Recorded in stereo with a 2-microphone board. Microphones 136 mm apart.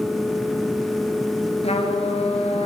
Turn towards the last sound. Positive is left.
turn(degrees=55)  # may be behind; listen again after turning